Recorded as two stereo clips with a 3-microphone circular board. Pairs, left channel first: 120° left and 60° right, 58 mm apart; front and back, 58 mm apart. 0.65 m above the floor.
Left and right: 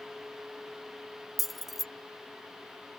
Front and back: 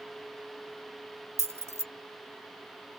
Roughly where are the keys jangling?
Behind right.